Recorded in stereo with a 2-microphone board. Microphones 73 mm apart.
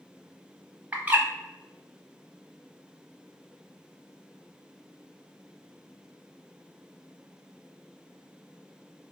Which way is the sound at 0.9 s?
20° right (ahead or behind).